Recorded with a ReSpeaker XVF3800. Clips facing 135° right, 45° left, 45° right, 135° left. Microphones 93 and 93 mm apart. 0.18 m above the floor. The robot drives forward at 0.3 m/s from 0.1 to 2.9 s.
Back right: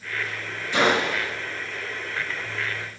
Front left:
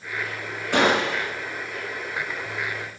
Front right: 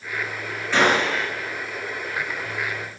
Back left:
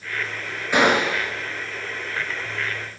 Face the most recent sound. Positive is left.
turn(degrees=75)